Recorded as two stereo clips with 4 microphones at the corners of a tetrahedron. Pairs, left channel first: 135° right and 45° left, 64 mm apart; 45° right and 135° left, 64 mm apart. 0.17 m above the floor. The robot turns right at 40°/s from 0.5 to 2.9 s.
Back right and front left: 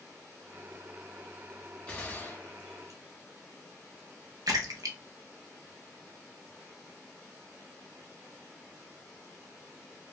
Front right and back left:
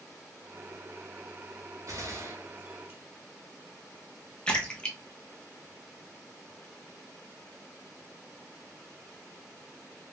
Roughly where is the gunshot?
Behind left.